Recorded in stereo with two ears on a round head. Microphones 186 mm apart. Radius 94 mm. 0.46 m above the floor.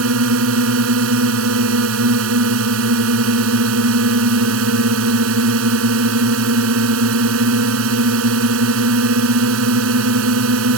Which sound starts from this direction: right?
A drone, at 0.0 s.